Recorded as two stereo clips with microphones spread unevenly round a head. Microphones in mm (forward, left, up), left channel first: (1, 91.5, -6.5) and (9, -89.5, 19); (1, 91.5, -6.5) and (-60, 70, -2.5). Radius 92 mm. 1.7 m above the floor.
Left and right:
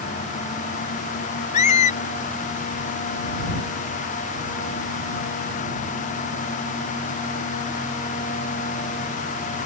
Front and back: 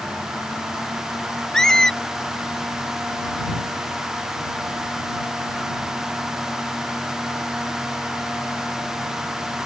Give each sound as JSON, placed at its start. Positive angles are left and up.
{"t": 1.5, "sound": "a squeak", "azimuth_deg": 100}